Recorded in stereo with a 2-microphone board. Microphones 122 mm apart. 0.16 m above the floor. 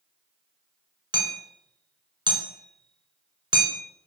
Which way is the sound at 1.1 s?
40° right (ahead or behind).